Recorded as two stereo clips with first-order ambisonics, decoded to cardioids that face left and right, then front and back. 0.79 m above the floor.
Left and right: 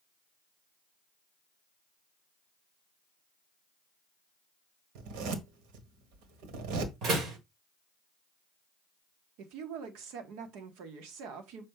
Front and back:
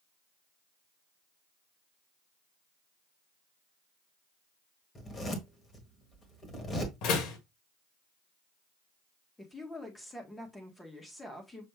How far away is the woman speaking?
About 1.7 m.